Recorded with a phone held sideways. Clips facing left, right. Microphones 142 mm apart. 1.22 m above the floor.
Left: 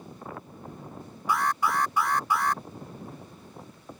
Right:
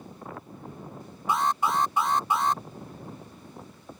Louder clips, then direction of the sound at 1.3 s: Right 1 dB; 25° right (ahead or behind).